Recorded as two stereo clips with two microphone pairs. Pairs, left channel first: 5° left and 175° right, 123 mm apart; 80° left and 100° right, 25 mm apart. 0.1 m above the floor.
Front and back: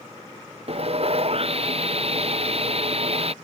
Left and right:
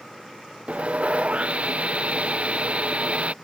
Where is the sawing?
135° right.